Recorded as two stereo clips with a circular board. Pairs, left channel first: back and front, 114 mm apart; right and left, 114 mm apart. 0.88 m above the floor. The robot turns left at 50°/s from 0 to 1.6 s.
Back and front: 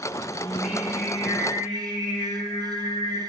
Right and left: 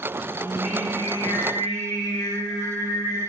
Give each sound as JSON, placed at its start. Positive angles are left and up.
{"t": 0.4, "sound": "singing", "azimuth_deg": -75, "distance_m": 1.1}